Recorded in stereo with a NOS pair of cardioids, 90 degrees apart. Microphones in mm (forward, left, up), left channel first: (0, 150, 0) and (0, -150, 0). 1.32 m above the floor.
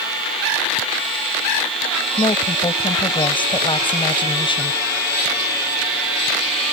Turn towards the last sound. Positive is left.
turn(degrees=15)